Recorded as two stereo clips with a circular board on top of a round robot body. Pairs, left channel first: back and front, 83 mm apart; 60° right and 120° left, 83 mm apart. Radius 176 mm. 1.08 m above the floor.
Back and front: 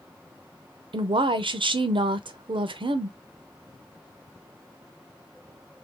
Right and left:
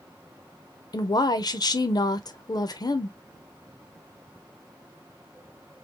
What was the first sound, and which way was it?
A woman speaking, 20° right.